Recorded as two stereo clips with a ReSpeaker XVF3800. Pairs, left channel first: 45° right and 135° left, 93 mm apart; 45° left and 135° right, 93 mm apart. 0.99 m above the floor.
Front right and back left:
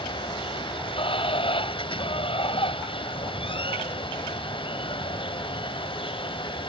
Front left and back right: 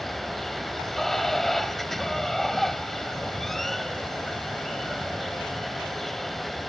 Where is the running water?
40° right.